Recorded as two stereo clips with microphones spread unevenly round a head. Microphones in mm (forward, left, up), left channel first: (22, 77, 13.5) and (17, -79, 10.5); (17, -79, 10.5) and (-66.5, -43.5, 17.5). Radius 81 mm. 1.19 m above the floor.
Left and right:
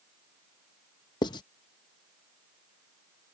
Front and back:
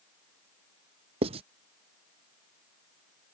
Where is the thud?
No thud in this recording.